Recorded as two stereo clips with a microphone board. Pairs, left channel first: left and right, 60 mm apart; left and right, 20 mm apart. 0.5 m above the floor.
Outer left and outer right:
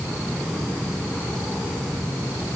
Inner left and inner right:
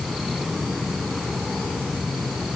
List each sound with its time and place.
Only background noise.